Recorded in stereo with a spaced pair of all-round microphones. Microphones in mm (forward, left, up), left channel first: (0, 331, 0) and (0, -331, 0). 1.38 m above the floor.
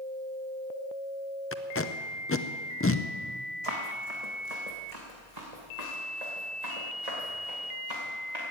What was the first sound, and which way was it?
Tape being pulled, 20° left (ahead or behind).